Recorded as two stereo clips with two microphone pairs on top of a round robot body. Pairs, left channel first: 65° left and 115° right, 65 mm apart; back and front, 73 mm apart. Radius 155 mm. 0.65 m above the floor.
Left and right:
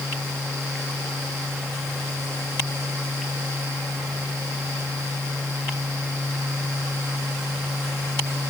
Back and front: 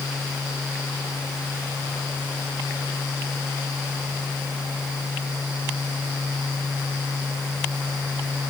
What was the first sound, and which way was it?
Only background noise.